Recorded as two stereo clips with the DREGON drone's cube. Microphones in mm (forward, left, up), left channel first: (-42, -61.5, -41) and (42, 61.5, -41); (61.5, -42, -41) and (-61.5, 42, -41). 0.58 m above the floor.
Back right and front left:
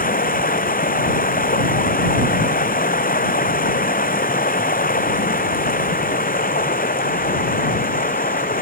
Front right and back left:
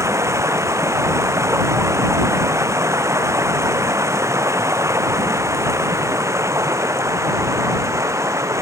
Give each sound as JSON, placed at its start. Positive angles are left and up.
{"t": 0.0, "sound": "running water", "azimuth_deg": -145}